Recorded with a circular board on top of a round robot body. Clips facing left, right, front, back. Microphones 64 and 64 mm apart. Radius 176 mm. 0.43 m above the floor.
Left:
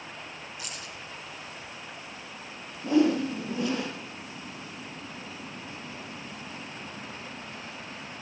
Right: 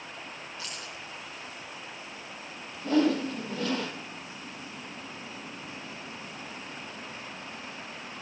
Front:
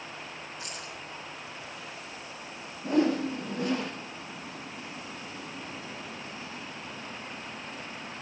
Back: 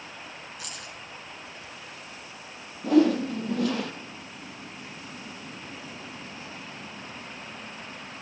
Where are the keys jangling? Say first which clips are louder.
Even, front 1 dB; 165° left, 4.5 m.